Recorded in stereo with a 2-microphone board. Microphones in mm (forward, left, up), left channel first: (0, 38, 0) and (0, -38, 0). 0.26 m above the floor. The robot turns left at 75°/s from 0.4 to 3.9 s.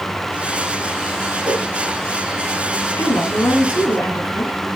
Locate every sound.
1.4 s a whoosh: 50° right (ahead or behind), 3 m; by 1.6 s 60° right (ahead or behind), 3 m
3.0 s a woman speaking: 125° left, 2 m; by 4.6 s 55° left, 2 m